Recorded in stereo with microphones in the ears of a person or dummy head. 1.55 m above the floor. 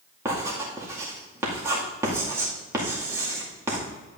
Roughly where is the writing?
Centre.